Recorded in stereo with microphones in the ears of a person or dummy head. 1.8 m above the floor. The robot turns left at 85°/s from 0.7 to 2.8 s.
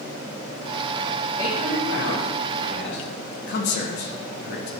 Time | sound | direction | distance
1.4 | a man speaking | 150° left | 4 m
3.5 | a man speaking | 65° left (ahead or behind) | 2 m